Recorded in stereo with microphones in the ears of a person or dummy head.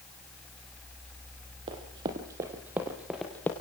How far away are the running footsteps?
About 2.5 m.